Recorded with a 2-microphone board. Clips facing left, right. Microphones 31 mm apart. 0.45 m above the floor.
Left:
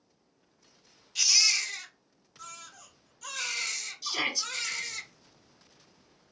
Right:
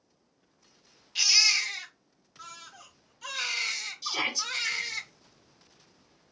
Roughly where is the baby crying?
Right.